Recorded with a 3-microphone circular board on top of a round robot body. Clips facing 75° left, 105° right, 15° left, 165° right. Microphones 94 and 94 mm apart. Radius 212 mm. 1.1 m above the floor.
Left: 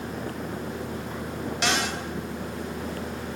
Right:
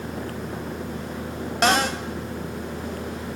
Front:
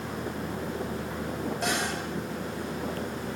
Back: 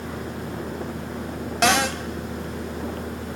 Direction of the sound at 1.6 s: 155° right.